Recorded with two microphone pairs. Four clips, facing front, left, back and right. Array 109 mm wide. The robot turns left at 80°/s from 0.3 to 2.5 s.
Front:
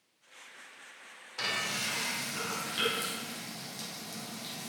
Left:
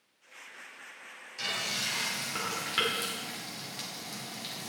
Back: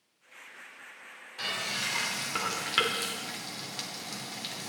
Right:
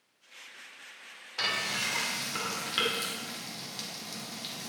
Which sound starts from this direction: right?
Frying, at 1.4 s.